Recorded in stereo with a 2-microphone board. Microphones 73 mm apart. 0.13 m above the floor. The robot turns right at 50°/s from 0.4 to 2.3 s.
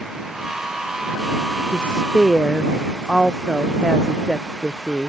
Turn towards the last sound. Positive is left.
turn(degrees=-175)